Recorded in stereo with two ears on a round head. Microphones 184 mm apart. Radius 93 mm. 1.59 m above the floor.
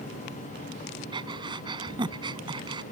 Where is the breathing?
25° right (ahead or behind).